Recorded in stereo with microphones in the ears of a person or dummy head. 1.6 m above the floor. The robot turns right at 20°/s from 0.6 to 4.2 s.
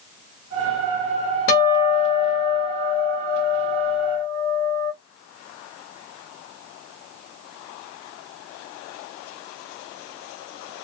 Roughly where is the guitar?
Left.